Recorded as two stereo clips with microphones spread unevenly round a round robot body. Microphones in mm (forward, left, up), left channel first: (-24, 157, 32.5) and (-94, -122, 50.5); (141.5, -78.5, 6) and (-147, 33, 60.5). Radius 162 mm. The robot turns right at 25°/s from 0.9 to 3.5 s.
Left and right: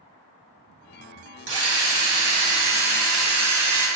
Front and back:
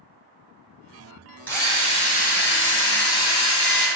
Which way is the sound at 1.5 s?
105° right.